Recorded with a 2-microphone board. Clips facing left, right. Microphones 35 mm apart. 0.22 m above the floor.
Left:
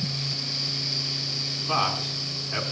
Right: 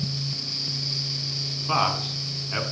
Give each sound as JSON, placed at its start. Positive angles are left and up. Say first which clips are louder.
{"t": 1.7, "sound": "a man speaking", "louder": "right 2 dB", "side_deg": -15, "distance_m": 2.5}